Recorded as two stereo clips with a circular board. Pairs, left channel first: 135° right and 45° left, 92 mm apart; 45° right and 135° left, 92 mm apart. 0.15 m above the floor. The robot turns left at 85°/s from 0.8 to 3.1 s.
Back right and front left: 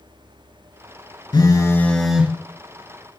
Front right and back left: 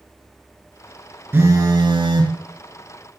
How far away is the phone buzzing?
About 0.5 m.